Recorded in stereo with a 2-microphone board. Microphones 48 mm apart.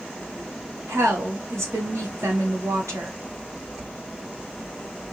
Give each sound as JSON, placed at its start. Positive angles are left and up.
{"t": 0.9, "sound": "a woman speaking", "side_deg": -80, "distance_m": 1.3}